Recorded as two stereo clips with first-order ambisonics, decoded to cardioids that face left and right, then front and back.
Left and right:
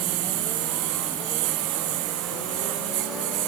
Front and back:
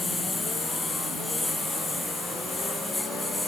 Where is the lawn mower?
80° right; by 3.5 s 85° right.